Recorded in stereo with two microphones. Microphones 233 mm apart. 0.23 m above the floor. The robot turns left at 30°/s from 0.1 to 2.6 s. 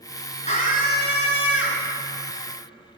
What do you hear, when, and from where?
0.5 s a scream: 145° left, 3.5 m; by 1.9 s 105° left, 3.5 m